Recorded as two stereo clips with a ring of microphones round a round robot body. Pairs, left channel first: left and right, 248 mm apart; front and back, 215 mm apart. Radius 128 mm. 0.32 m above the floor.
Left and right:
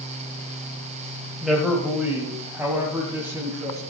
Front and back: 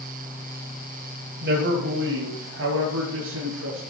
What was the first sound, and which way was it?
A man speaking, straight behind.